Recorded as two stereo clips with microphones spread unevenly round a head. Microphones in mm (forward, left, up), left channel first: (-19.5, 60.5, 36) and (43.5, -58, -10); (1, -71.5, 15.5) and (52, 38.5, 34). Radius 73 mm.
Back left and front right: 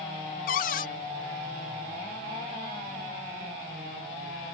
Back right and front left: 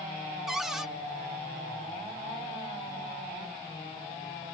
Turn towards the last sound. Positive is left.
turn(degrees=155)